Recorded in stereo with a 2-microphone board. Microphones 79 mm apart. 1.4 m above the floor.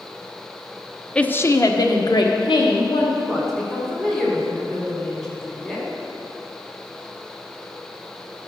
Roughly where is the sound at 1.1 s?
Centre.